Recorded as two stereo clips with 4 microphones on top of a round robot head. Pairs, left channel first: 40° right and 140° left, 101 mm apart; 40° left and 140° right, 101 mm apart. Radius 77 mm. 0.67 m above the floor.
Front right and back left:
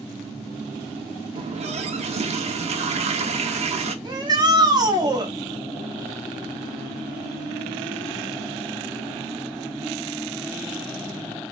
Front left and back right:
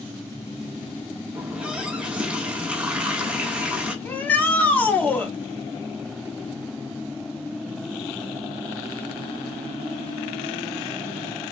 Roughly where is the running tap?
Behind left.